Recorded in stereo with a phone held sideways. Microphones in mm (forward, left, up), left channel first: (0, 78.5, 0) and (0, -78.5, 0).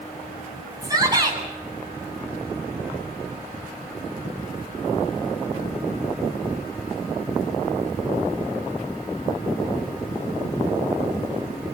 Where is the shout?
25° right (ahead or behind), 9.5 m.